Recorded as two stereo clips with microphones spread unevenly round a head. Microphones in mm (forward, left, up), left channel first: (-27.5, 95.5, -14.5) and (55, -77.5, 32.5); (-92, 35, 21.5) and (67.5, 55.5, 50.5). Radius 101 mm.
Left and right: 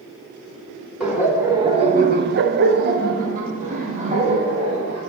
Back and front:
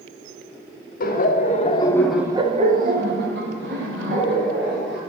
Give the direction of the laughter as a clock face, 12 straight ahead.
5 o'clock.